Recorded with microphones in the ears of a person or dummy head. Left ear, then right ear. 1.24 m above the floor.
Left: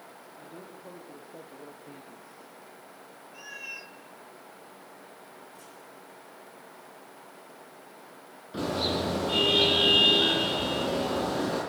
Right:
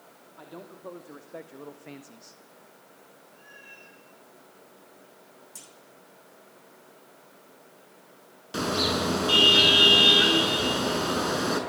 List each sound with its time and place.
0.4 s a man speaking: 40° right (ahead or behind), 2.5 m; by 2.4 s 65° right (ahead or behind), 1.1 m
3.3 s a cat meowing: 75° left (ahead or behind), 2.5 m
5.5 s a clunk: 85° right, 3.5 m
8.5 s a car horn: 65° right (ahead or behind), 6.5 m